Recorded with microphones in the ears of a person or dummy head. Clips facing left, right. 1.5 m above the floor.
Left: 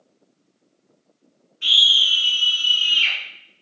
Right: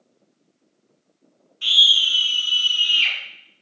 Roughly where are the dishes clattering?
I don't hear dishes clattering.